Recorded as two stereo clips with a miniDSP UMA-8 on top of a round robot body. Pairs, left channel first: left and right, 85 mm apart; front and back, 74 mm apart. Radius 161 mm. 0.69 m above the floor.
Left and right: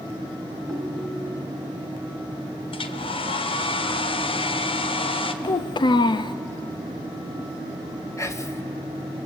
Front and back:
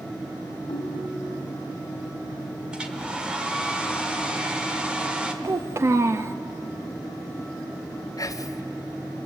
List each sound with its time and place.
0.7 s a ringtone: 10° left, 1.8 m
2.7 s a hair dryer: 100° left, 1.4 m
5.4 s a child speaking: 125° left, 0.5 m
8.2 s whispering: 35° left, 2 m